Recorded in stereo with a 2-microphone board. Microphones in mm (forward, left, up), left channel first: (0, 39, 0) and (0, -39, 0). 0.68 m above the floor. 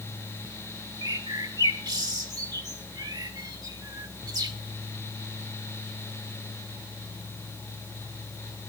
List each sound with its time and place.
1.0 s a bird: 50° right (ahead or behind), 2.0 m